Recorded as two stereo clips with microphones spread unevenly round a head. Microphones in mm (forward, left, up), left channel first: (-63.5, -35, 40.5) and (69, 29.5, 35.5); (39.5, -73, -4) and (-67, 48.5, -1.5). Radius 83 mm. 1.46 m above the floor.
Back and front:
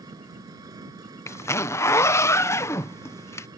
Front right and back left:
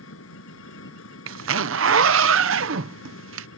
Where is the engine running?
40° right.